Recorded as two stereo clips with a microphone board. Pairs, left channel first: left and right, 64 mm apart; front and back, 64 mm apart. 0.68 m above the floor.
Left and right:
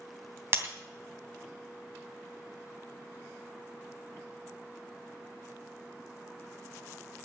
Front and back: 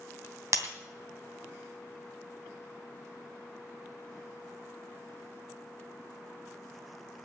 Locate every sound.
0.5 s breaking glass: 140° right, 2.5 m